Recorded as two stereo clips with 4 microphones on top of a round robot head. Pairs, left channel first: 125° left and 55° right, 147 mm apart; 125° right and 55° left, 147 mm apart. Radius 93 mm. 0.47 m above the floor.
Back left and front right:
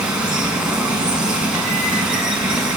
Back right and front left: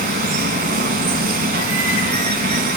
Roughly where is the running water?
Ahead left.